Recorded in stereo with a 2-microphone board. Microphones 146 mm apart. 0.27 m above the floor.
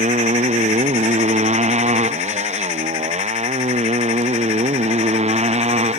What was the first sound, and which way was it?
A motorcycle, 55° right (ahead or behind).